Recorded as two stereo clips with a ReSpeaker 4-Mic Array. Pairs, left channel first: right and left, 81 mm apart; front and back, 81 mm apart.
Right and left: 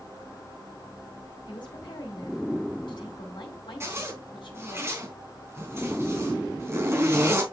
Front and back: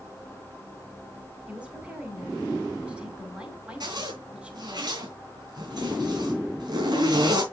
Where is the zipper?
150° left, 3.5 m.